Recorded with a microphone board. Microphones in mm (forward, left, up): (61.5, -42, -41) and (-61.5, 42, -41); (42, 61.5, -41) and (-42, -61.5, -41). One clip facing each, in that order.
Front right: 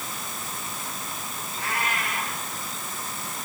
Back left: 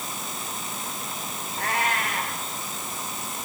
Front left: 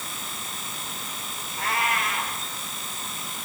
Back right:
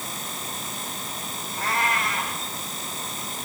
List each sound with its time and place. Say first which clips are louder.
1.6 s a cat meowing: back left 3 dB, back right 1 dB; 140° left, 7 m